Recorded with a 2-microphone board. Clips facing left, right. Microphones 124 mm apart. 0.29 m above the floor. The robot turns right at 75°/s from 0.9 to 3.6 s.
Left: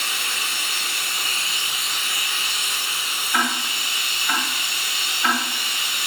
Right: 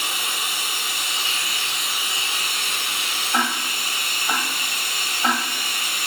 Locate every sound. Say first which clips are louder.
0.0 s running water: right 1 dB; 110° left, 2 m; by 6.1 s 50° right, 2 m
3.3 s ticking: even; 35° right (ahead or behind), 1.7 m